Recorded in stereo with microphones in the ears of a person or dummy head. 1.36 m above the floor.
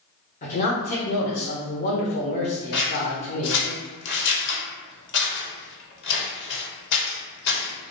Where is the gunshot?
No gunshot in this recording.